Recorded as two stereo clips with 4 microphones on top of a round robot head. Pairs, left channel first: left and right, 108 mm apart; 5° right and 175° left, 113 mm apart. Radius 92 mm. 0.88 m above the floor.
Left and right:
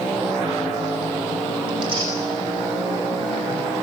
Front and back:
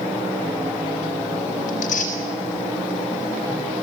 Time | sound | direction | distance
1.7 | tearing paper | 35° right | 5 m